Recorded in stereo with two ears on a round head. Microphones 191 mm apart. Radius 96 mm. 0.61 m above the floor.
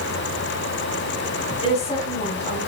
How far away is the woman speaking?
About 3.5 m.